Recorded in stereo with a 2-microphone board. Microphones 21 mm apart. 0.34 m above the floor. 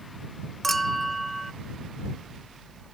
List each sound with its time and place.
0.6 s a clink: 10° left (ahead or behind)